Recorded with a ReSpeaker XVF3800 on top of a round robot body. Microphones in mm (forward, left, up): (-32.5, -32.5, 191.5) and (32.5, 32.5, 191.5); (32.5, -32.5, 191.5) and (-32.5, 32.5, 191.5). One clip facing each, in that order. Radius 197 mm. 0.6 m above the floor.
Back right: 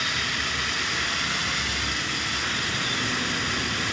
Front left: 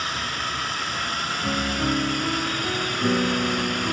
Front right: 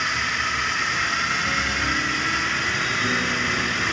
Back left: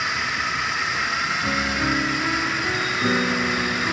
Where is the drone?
50° left.